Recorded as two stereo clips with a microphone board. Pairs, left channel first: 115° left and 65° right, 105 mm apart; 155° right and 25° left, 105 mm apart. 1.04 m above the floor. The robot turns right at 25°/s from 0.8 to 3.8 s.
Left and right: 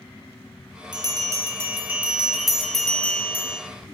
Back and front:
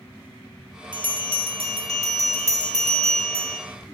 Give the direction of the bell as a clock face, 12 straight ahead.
1 o'clock.